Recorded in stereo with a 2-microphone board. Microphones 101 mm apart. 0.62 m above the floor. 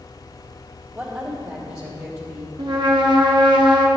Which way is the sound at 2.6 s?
45° right (ahead or behind).